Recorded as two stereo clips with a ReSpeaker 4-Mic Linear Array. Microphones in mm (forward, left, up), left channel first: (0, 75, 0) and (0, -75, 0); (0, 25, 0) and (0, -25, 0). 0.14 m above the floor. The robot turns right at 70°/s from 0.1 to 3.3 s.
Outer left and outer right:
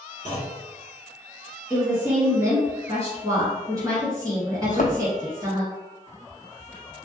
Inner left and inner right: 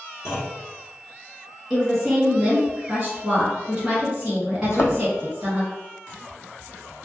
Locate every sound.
0.2 s a clunk: 55° left (ahead or behind), 1.7 m; by 0.6 s 45° left (ahead or behind), 1.7 m
1.7 s a woman speaking: 5° right (ahead or behind), 1.3 m; by 5.6 s 20° right (ahead or behind), 1.3 m
4.6 s a thud: 60° left (ahead or behind), 0.7 m